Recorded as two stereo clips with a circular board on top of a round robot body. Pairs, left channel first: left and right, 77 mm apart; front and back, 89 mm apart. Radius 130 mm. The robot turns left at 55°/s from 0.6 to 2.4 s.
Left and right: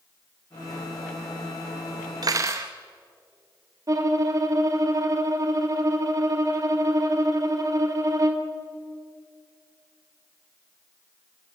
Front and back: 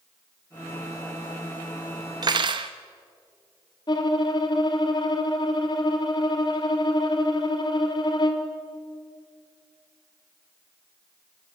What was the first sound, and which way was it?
Cutlery clinking, 135° right.